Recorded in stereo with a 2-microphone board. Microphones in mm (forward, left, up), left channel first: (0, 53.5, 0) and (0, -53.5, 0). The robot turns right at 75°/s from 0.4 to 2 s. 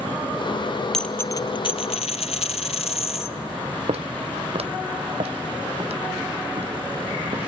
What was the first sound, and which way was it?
A dropped coin, 5° left.